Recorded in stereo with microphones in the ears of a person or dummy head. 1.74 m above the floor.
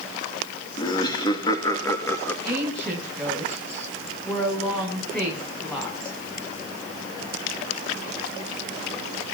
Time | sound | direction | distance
0.8 | laughter | 30° left (ahead or behind) | 3 m
2.5 | a woman speaking | 5° left (ahead or behind) | 8.5 m